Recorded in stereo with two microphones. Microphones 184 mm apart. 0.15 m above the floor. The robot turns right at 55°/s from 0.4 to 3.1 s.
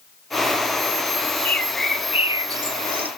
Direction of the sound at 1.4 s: 10° left (ahead or behind).